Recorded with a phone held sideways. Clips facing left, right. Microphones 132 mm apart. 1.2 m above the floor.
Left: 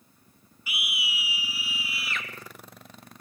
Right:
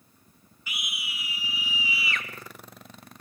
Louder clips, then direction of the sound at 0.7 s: Left 4 dB; 10° left (ahead or behind).